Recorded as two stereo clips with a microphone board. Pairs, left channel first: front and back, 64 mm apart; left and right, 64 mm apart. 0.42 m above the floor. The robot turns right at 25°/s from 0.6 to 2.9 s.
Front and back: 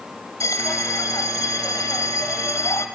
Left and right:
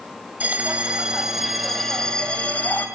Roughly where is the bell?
Ahead right.